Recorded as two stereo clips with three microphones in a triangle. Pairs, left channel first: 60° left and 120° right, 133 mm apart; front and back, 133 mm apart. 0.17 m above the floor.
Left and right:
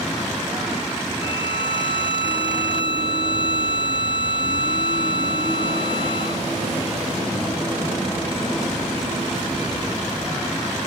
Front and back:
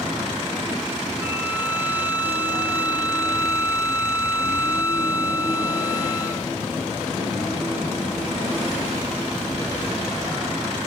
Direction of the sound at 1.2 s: 105° left.